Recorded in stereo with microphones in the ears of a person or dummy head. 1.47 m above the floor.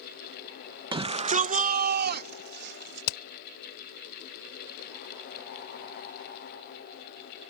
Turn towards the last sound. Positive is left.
turn(degrees=55)  # may be behind; listen again after turning